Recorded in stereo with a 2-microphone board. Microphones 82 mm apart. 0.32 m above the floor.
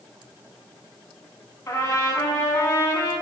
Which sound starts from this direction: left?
A trumpet, at 1.7 s.